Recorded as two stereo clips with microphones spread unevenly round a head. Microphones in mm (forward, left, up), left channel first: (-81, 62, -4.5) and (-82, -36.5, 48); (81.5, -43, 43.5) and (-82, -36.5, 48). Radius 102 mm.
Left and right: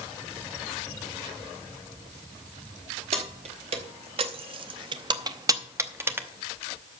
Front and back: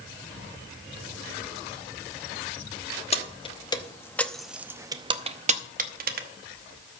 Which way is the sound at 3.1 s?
55° right.